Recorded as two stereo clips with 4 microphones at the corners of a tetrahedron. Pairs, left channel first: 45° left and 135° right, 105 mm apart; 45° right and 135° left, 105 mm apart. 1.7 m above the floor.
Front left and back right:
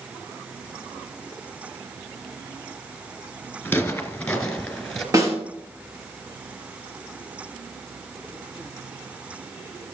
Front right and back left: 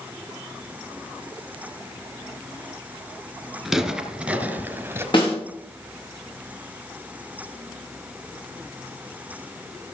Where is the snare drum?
80° right, 4 m.